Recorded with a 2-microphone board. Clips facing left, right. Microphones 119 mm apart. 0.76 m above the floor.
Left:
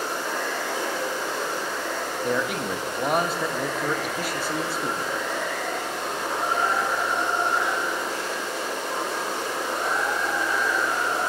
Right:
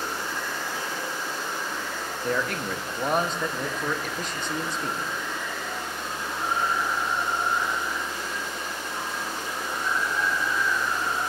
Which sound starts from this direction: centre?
A man speaking, at 2.2 s.